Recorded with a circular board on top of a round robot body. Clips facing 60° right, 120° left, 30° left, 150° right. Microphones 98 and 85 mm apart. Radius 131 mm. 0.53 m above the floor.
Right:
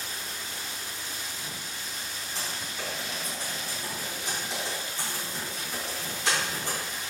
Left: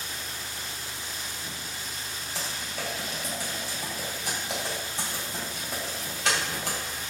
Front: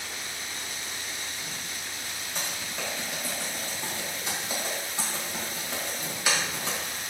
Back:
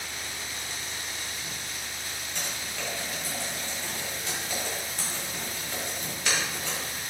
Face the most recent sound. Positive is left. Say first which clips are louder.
# left 1 dB, front 2 dB
turn(degrees=105)